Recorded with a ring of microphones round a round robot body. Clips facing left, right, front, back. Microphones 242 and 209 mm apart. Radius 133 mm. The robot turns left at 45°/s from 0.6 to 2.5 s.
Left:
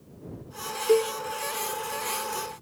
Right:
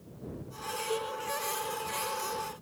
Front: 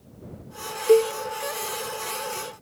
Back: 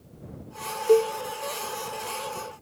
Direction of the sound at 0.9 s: 80° left.